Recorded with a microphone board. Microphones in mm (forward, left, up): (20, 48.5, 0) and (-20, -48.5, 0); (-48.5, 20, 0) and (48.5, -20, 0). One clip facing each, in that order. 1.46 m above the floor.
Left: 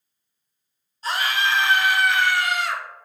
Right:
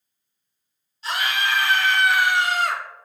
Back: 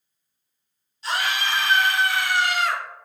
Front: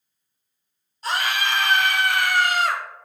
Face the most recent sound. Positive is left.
turn(degrees=-80)